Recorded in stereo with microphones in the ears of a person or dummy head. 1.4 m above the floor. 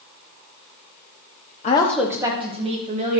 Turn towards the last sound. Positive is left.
turn(degrees=-35)  # may be behind; listen again after turning